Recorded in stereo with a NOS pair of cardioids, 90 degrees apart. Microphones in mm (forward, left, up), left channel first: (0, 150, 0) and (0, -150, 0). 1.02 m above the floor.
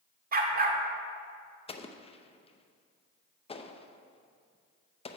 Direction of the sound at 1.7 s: 20° left.